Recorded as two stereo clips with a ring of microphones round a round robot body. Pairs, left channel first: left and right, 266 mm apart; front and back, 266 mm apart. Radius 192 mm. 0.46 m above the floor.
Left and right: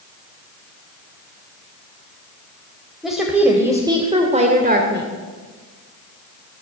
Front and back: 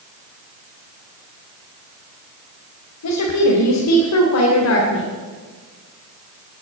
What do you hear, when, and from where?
3.0 s a woman speaking: straight ahead, 2.5 m; by 5.1 s 45° right, 1.9 m